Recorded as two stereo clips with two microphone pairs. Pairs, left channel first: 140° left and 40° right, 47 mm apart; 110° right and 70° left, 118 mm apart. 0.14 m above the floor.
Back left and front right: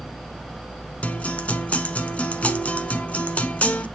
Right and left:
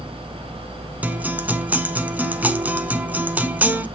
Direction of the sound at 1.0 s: 135° left.